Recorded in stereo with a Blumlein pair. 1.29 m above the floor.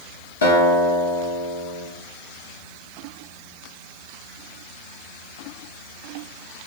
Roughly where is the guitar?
Ahead left.